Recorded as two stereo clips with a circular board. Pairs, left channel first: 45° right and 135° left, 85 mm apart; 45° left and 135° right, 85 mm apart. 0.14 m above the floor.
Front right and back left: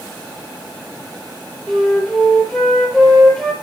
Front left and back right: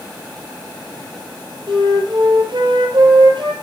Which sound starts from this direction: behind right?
A flute, at 1.7 s.